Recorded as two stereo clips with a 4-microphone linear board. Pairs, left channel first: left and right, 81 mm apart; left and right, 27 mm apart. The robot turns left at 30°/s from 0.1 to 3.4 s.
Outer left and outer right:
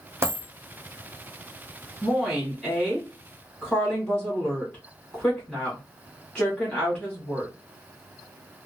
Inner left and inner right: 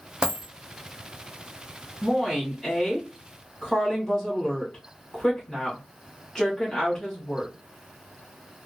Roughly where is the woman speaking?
Behind.